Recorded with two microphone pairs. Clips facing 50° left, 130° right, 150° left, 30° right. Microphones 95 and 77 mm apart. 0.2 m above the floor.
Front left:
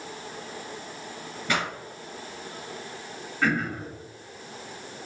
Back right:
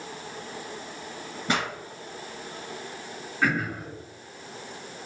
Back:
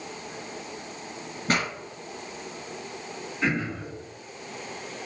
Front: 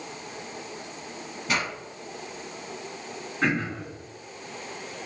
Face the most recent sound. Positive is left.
turn(degrees=-45)